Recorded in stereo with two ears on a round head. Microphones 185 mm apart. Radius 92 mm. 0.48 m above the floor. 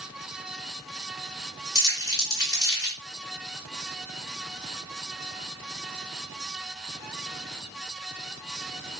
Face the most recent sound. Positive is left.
turn(degrees=20)  # may be behind; listen again after turning